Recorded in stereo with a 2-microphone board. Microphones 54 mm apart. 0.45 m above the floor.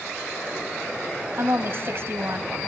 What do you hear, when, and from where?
1.4 s a woman speaking: 50° right (ahead or behind), 2.5 m